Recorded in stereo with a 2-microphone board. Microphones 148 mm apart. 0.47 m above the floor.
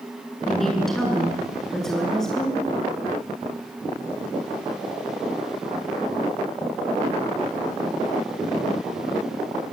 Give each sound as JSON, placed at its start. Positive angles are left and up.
{"t": 0.5, "sound": "a woman speaking", "side_deg": 0, "distance_m": 7.0}